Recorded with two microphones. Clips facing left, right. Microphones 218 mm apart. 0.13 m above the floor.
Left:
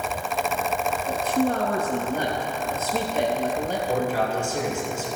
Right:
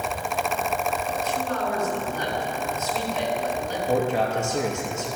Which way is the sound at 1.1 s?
55° left (ahead or behind).